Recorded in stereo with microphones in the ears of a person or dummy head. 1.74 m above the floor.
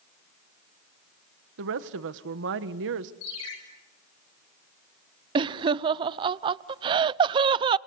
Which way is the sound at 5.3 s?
25° right (ahead or behind).